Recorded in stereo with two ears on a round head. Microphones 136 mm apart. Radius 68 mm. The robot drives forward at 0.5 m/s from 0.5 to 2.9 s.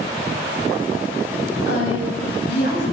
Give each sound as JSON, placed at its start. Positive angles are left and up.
{"t": 1.7, "sound": "a woman speaking", "side_deg": 75, "distance_m": 9.0}